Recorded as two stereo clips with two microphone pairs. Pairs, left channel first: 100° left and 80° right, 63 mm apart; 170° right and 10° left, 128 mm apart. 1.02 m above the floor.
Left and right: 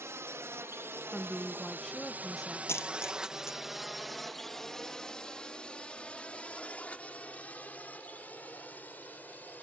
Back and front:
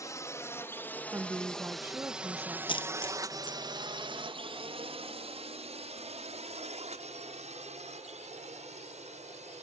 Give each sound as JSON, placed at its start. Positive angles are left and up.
{"t": 0.0, "sound": "a drone", "azimuth_deg": -110}
{"t": 1.1, "sound": "a woman speaking", "azimuth_deg": 20}
{"t": 2.7, "sound": "a dropped coin", "azimuth_deg": 140}